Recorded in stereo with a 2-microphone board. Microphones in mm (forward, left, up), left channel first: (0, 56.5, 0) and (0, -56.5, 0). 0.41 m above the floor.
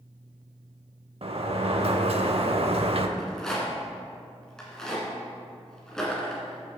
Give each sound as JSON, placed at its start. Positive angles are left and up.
{"t": 1.2, "sound": "a sliding door", "side_deg": -60, "distance_m": 0.6}
{"t": 3.2, "sound": "a rattle", "side_deg": 5, "distance_m": 1.9}